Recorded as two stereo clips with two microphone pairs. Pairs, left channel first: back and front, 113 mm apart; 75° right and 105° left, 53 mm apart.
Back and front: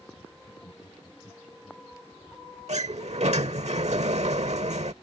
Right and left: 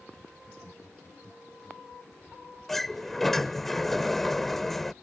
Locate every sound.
0.4 s laughter: 145° right
2.7 s a sliding door: 10° left